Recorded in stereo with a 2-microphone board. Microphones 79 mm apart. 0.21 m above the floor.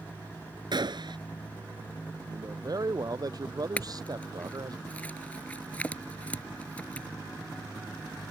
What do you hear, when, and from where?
0.7 s a gunshot: 70° right (ahead or behind)
2.3 s a man speaking: 50° right (ahead or behind)
3.8 s a clink: 20° left (ahead or behind)